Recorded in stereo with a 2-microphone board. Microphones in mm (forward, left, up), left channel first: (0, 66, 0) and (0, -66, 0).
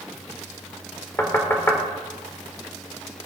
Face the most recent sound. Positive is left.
turn(degrees=20)  # may be behind; listen again after turning